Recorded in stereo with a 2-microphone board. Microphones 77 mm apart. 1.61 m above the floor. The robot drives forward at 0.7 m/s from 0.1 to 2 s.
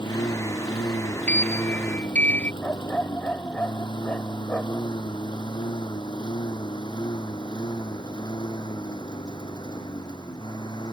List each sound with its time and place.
0.0 s a lawn mower: 80° left; by 10.9 s 65° left (ahead or behind)
1.3 s a sliding door: 20° left (ahead or behind); by 2.5 s 25° left (ahead or behind)
2.6 s a dog barking: 20° left (ahead or behind)